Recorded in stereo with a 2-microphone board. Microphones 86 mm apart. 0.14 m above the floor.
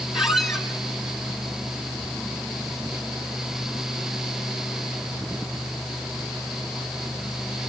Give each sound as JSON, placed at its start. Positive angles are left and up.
{"t": 0.1, "sound": "a squeak", "side_deg": -5, "distance_m": 1.3}